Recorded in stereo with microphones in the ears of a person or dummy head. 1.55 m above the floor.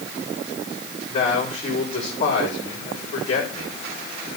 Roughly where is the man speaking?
Left.